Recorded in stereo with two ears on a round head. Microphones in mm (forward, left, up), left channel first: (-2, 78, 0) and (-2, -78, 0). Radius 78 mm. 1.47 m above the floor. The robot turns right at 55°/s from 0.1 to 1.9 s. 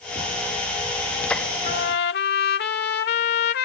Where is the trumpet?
50° left (ahead or behind); by 3.7 s 65° left (ahead or behind).